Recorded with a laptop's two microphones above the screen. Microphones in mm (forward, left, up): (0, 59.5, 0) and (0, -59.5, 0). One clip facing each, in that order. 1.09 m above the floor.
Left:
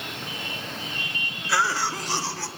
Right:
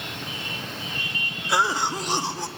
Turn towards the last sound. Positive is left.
turn(degrees=-20)  # may be behind; listen again after turning